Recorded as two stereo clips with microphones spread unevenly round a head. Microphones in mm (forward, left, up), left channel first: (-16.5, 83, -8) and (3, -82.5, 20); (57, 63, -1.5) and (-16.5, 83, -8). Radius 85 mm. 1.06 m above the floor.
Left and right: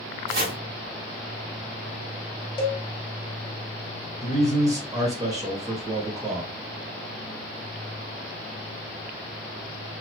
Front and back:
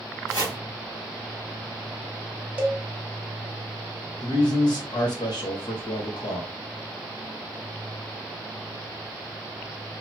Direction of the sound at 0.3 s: 70° right.